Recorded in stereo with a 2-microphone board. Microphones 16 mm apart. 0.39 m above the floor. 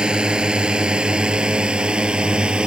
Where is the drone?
65° right (ahead or behind); by 2.7 s 80° right.